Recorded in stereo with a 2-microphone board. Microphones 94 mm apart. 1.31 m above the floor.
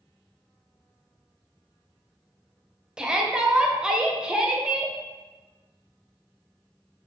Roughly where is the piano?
No piano in this recording.